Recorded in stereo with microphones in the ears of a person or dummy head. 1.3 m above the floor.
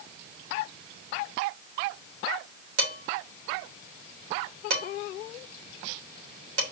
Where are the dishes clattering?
85° right, 3.5 m.